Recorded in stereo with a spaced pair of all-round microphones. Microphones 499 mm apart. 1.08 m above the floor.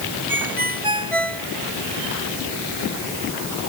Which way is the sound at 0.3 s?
85° right.